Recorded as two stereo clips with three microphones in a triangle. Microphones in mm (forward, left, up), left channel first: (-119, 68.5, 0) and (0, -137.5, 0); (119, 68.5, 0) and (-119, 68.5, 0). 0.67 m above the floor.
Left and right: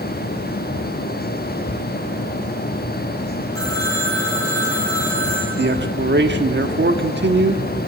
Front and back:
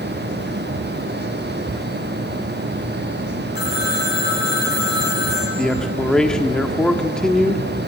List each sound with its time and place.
3.5 s a phone ringing: 45° left, 6.5 m
5.6 s a man speaking: 85° right, 1.3 m